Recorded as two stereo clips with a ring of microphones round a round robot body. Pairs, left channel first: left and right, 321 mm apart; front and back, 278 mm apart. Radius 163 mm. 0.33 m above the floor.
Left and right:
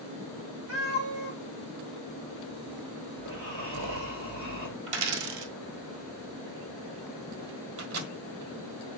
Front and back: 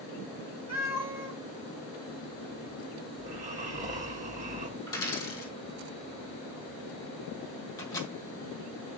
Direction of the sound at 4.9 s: 80° right.